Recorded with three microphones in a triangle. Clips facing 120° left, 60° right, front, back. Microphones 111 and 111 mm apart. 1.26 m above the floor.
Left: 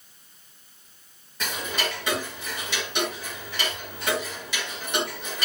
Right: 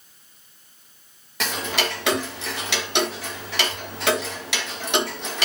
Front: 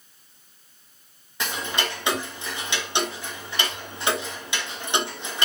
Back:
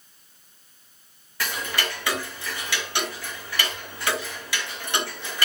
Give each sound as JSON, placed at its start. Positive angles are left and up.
{"t": 1.4, "sound": "ticking", "azimuth_deg": -70, "distance_m": 1.3}